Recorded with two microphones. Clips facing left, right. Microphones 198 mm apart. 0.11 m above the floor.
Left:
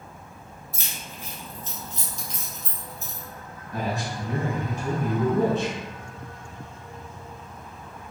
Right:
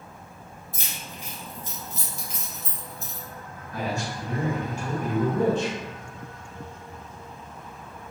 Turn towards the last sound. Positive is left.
turn(degrees=20)  # may be behind; listen again after turning